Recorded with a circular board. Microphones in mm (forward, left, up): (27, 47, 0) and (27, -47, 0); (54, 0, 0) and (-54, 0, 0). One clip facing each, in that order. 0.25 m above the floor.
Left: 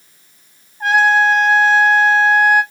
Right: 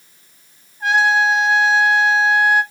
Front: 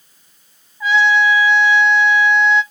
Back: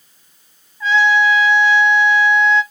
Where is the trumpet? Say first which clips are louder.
Left 3 dB, even; 75° left, 1.2 m.